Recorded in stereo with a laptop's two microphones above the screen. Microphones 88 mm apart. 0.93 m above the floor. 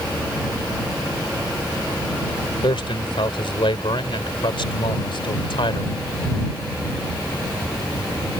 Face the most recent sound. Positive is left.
turn(degrees=70)  # may be behind; listen again after turning